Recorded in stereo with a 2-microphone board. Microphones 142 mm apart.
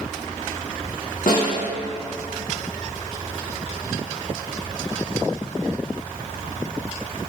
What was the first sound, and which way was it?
A snare drum, 70° left (ahead or behind).